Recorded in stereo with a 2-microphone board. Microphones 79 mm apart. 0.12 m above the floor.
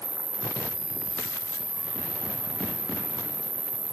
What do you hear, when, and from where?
0.0 s an insect: 55° right (ahead or behind), 1.2 m